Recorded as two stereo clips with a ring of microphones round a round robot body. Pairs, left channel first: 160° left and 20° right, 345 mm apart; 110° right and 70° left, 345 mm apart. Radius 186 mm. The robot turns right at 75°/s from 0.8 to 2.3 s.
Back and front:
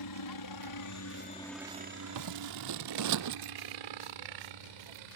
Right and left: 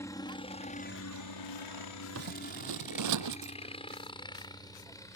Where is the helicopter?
165° left; by 5.2 s 30° right.